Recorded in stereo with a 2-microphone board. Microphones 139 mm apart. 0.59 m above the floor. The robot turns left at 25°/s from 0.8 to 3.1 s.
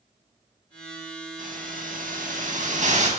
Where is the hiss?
75° right, 5 m; by 3.1 s 120° right, 5 m.